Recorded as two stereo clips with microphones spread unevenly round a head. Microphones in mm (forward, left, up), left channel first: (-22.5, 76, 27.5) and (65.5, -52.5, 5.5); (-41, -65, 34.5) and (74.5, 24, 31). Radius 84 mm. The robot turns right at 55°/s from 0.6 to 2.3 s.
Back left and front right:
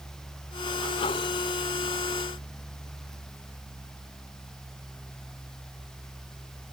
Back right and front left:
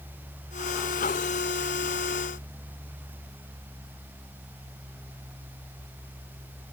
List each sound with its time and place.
Only background noise.